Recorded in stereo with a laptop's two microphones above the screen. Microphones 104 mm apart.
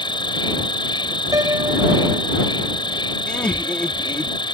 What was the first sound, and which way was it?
An insect, 50° left (ahead or behind).